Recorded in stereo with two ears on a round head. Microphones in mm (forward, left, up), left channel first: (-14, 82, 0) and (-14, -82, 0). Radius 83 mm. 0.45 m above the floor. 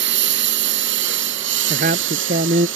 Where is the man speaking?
45° right (ahead or behind).